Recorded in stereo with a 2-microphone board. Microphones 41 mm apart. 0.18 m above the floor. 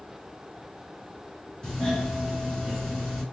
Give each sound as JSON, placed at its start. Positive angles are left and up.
{"t": 1.6, "sound": "a doorbell", "side_deg": 20, "distance_m": 2.0}